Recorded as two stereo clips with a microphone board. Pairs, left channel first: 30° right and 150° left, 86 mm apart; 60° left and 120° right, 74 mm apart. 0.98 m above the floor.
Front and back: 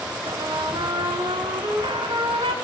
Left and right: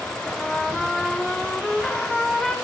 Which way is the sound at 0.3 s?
145° left.